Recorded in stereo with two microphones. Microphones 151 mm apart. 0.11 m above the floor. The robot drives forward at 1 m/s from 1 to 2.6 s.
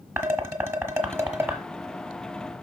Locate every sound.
0.2 s dishes clattering: 15° right (ahead or behind), 1.1 m; by 1.6 s 10° right (ahead or behind), 1.6 m